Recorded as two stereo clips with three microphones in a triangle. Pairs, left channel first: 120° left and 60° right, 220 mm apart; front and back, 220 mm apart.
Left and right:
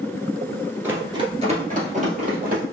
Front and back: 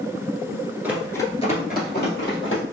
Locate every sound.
0.8 s running footsteps: 120° right, 1.3 m; by 2.6 s 10° right, 3 m